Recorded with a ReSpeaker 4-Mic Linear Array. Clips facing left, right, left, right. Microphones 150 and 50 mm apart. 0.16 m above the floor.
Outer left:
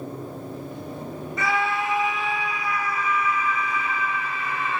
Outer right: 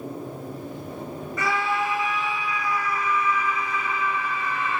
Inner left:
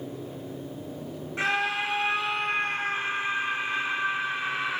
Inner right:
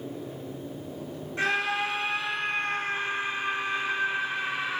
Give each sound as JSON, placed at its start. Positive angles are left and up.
{"t": 1.4, "sound": "a scream", "side_deg": 20, "distance_m": 1.5}